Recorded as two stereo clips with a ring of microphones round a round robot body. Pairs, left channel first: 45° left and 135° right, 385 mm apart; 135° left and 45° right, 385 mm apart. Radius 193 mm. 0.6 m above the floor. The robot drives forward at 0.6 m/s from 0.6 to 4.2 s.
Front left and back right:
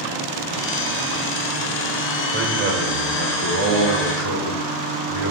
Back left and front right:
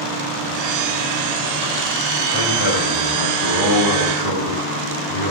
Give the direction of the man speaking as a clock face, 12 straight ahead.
7 o'clock.